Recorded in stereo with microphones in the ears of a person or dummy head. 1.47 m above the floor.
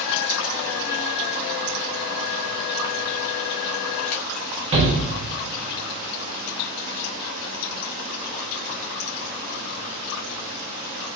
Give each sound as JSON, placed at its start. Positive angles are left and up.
{"t": 4.7, "sound": "a shout", "side_deg": -35, "distance_m": 1.0}